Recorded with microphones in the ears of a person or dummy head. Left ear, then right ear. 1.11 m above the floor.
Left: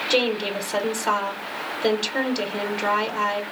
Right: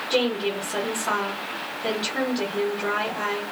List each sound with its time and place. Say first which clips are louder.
0.1 s a woman speaking: left 1 dB; 35° left (ahead or behind), 0.9 m